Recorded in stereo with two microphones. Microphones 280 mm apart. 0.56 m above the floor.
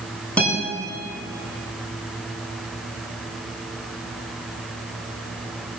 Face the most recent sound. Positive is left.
turn(degrees=5)  # may be behind; listen again after turning